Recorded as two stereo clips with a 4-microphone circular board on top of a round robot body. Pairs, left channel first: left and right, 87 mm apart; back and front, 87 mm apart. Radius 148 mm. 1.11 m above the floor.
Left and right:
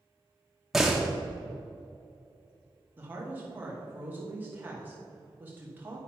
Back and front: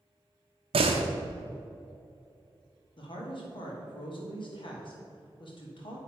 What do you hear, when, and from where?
0.7 s a door slam: straight ahead, 0.7 m
3.0 s a woman speaking: 160° right, 2.5 m